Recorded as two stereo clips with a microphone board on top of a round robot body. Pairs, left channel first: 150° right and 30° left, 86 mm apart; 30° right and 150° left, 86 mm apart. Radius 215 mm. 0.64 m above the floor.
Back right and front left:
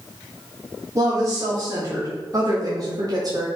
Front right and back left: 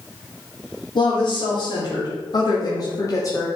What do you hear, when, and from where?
0.9 s a woman speaking: 20° right, 2.5 m; by 3.5 s 10° left, 1.6 m